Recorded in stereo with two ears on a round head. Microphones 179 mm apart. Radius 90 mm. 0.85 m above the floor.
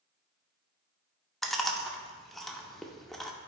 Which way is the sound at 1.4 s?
Centre (ahead or behind).